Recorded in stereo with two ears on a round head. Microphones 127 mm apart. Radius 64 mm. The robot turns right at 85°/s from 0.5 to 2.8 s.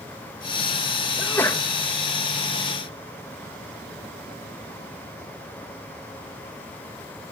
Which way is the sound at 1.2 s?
10° left (ahead or behind).